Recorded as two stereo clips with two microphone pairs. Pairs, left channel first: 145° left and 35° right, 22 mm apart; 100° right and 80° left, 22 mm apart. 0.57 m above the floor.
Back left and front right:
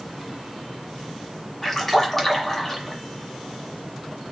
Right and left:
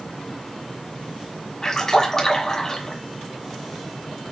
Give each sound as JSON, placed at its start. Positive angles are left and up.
{"t": 1.6, "sound": "a splash", "azimuth_deg": -145, "distance_m": 1.4}